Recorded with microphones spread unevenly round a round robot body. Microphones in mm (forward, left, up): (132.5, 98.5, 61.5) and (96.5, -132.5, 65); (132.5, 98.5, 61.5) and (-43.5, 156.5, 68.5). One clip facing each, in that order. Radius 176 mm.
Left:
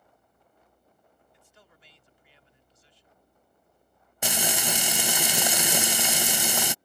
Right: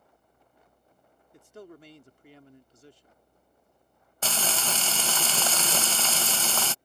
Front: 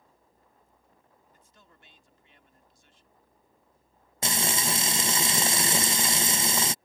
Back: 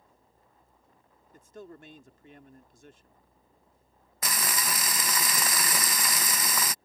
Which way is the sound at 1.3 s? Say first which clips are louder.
Right 20 dB, back 20 dB; 145° right.